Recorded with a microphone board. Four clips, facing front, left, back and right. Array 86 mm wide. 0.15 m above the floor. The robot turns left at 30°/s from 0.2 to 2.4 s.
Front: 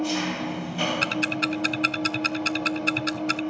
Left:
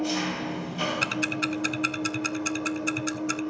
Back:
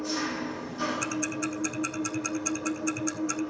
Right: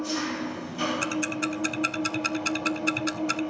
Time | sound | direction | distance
0.0 | an engine running | 30° left | 3.5 m
1.0 | ticking | 30° left | 0.5 m